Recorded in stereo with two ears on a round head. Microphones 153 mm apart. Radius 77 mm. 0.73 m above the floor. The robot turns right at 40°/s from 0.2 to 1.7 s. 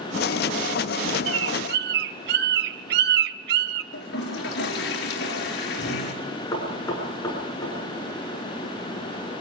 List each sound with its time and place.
1.3 s a bird: 75° right (ahead or behind), 0.7 m; by 3.8 s 60° right (ahead or behind), 0.7 m
3.9 s a toilet flushing: 60° left (ahead or behind), 4 m
6.5 s knocking: 20° left (ahead or behind), 7 m